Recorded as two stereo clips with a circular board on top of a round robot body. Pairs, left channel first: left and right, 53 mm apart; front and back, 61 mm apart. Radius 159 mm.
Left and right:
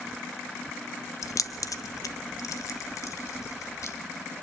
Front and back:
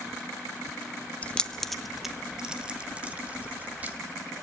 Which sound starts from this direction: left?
Keys jangling, at 1.2 s.